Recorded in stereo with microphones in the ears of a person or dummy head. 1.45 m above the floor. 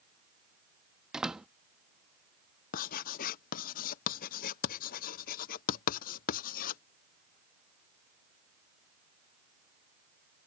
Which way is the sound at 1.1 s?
Centre (ahead or behind).